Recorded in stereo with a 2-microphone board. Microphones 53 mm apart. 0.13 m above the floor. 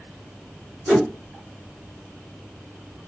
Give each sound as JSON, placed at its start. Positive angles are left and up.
{"t": 0.9, "sound": "a whoosh", "side_deg": -10, "distance_m": 1.5}